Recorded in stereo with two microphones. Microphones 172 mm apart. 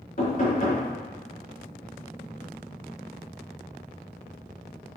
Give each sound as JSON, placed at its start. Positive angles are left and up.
{"t": 0.2, "sound": "knocking", "side_deg": 55, "distance_m": 3.5}